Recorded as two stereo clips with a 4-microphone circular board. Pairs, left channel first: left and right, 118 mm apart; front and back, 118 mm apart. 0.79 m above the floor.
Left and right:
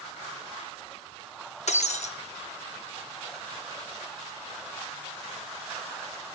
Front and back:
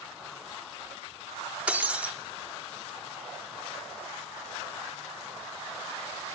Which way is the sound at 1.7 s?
100° left.